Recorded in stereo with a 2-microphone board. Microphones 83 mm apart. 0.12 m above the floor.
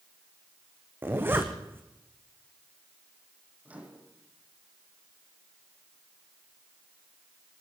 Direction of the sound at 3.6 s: 15° right (ahead or behind).